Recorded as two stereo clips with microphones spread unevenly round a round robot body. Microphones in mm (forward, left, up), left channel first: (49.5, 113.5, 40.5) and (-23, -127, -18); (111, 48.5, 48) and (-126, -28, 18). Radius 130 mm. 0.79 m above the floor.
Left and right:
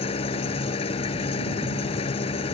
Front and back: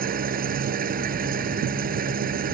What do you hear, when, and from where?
0.0 s an engine running: 140° left